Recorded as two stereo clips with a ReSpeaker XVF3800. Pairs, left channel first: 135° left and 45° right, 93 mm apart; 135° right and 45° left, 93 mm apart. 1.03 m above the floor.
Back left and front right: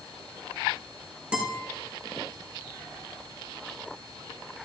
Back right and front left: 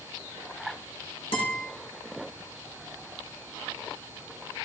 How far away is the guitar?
About 4.5 m.